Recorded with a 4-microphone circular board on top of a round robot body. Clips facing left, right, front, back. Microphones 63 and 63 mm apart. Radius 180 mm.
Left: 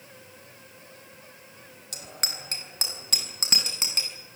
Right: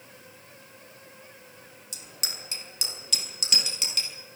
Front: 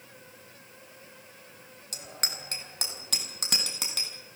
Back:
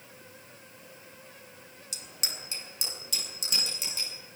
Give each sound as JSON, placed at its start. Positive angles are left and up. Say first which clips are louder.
{"t": 1.9, "sound": "a bicycle bell", "louder": "left 4 dB, front 4 dB", "azimuth_deg": 50, "distance_m": 3.0}